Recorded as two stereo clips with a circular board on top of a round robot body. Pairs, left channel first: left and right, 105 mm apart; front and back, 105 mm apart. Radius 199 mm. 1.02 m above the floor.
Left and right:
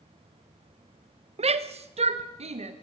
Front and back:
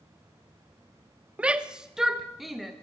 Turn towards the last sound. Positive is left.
turn(degrees=-90)